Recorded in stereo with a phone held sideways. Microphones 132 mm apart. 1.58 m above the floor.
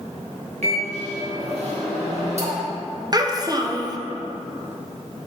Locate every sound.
0.6 s a microwave: 65° right (ahead or behind), 1.6 m
3.1 s a child speaking: 30° right (ahead or behind), 0.7 m